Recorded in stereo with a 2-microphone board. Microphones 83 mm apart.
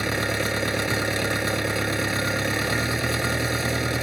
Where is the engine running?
5° right (ahead or behind).